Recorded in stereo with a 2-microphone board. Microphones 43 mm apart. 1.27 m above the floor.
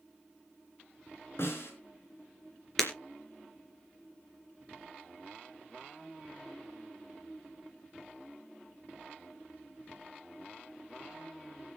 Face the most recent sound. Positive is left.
turn(degrees=5)  # may be behind; listen again after turning